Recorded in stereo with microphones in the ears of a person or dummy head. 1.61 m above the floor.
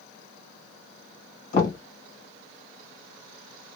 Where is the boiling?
I don't hear boiling.